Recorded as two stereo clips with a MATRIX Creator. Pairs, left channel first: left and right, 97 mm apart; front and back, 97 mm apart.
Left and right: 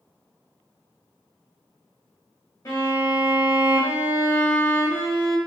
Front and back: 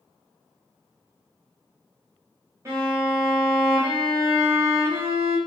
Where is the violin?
130° left, 1.2 m.